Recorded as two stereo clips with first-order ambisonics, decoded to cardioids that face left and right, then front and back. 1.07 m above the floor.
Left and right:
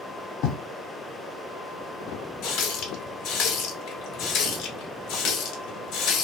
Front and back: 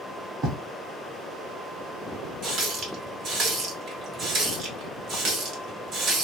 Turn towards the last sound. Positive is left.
turn(degrees=130)